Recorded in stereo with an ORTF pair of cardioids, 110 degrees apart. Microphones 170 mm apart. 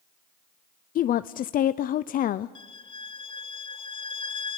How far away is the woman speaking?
About 0.6 m.